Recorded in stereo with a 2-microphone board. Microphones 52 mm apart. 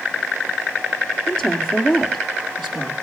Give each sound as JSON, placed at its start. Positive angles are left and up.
{"t": 1.3, "sound": "a woman speaking", "side_deg": 5, "distance_m": 4.0}